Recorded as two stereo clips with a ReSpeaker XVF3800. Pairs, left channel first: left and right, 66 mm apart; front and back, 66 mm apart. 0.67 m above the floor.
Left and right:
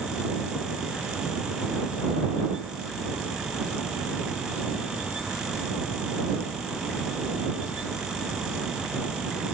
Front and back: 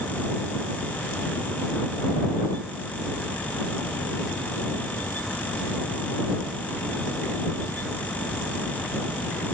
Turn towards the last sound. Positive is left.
No sound to turn to.